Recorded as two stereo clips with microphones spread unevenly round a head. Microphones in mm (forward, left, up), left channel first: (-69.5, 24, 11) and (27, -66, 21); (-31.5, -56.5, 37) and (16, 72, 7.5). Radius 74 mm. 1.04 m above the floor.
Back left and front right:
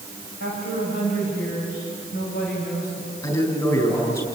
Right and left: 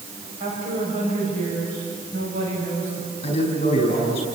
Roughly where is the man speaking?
Behind.